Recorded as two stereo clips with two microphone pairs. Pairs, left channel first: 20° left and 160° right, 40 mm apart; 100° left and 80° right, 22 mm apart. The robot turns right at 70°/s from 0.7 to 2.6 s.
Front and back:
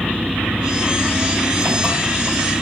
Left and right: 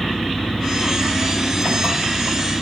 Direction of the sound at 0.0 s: 170° left.